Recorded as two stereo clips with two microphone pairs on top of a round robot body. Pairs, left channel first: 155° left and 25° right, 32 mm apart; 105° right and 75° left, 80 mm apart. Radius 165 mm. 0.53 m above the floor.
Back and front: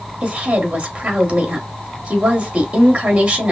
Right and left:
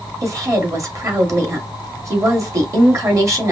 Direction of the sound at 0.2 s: 25° left.